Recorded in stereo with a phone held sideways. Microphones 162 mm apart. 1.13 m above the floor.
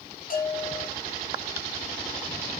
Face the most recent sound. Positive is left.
turn(degrees=60)  # may be behind; listen again after turning